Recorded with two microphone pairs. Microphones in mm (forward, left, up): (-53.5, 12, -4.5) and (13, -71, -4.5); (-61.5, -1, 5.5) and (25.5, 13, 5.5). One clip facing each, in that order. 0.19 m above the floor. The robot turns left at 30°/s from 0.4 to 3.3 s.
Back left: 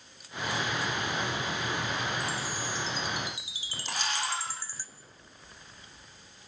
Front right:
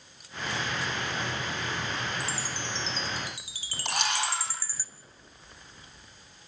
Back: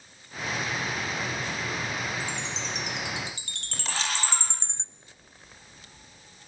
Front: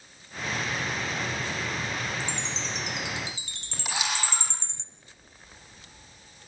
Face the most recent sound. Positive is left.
turn(degrees=-70)